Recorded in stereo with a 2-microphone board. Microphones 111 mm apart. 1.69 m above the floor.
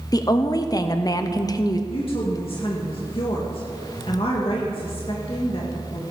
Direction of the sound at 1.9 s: 55° left (ahead or behind).